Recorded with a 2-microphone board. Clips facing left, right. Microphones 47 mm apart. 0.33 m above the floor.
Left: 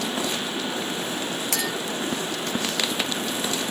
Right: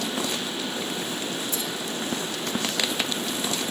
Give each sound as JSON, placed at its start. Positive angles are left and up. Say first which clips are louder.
{"t": 1.5, "sound": "a clink", "louder": "left 4 dB", "side_deg": 80, "distance_m": 3.5}